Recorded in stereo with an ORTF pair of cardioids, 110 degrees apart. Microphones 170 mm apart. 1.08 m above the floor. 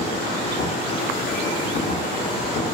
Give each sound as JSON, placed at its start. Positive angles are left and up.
{"t": 0.0, "sound": "a machine running", "azimuth_deg": 65, "distance_m": 2.0}